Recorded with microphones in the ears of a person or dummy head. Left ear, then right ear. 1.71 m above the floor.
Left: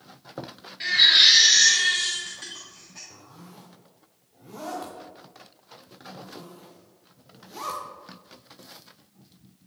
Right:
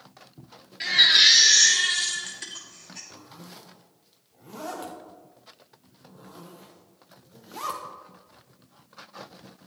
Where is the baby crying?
10° right (ahead or behind), 1.1 m.